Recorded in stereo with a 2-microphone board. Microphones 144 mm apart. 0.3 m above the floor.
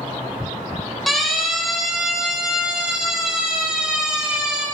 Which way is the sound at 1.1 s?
Centre (ahead or behind).